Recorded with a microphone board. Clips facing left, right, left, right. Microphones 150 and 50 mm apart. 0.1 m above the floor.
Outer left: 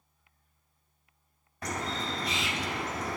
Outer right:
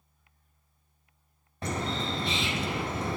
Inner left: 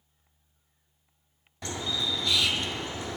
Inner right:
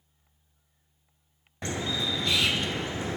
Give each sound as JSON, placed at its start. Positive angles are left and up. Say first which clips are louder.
{"t": 1.6, "sound": "a bird", "louder": "outer right 3 dB, inner right 2 dB", "side_deg": -30, "distance_m": 0.6}